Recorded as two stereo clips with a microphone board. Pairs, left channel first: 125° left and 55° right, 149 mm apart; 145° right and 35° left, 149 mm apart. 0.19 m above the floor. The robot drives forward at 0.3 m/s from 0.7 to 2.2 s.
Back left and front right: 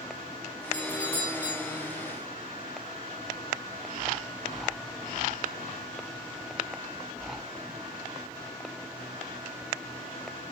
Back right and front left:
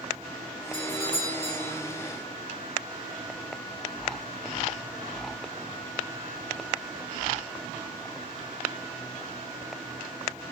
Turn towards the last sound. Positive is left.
turn(degrees=175)